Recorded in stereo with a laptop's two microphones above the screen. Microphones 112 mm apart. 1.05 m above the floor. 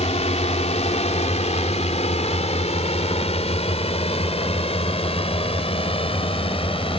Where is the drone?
75° left (ahead or behind); by 7.0 s 55° left (ahead or behind).